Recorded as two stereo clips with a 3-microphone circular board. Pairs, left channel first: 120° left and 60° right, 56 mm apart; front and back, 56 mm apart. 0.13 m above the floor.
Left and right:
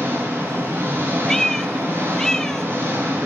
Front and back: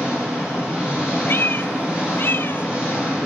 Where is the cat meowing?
40° left, 0.5 m.